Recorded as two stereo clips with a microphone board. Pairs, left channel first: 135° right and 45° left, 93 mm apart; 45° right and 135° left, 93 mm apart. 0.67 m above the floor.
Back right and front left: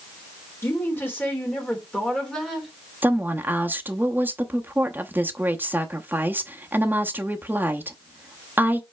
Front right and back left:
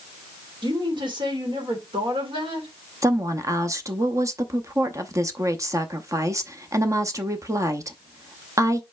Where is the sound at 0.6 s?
165° left, 2.5 m; by 2.7 s 135° left, 2.5 m.